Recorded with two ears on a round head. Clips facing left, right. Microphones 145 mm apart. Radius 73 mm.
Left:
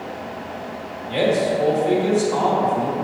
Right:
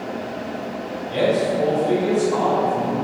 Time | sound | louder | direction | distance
1.1 | a man speaking | even | 15° left (ahead or behind) | 1.3 m